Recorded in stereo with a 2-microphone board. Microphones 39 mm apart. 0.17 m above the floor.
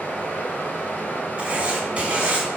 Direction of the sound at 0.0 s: 45° left (ahead or behind).